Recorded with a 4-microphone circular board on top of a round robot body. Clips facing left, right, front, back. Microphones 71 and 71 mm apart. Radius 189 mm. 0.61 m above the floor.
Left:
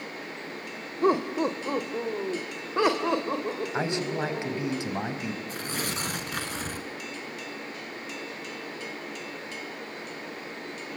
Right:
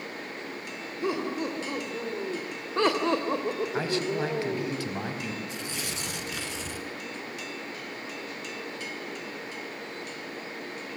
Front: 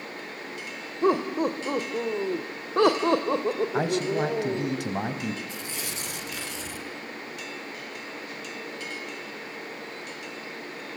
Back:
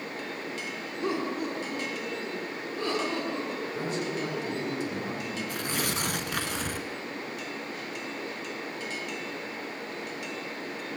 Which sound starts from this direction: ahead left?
Laughter, at 1.0 s.